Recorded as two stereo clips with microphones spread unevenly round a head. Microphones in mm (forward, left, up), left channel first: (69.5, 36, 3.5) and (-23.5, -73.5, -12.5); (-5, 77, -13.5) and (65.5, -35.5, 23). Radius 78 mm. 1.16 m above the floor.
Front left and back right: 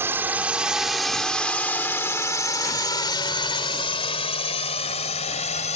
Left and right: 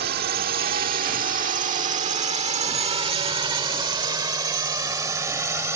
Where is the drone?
55° right; by 5.8 s 10° left.